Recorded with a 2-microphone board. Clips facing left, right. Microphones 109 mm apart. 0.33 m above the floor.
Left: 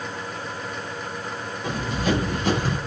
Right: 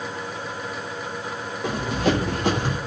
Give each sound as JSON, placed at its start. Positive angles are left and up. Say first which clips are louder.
{"t": 1.6, "sound": "running footsteps", "louder": "right 2 dB", "side_deg": -70, "distance_m": 5.0}